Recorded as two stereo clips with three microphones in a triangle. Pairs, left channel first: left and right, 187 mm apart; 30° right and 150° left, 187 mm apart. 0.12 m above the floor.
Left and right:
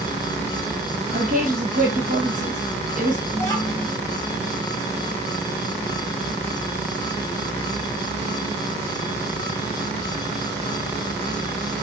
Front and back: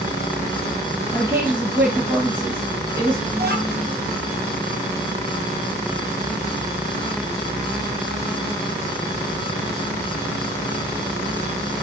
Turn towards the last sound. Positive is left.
turn(degrees=160)